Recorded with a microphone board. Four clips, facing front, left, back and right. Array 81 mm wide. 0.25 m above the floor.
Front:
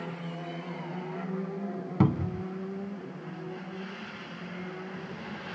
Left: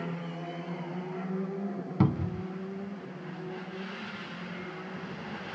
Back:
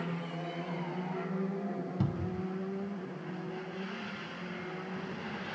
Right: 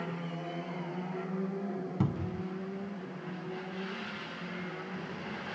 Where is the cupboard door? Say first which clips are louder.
Left 8 dB, front 11 dB; 30° left.